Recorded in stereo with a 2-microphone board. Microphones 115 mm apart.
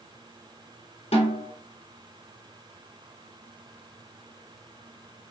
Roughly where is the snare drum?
Left.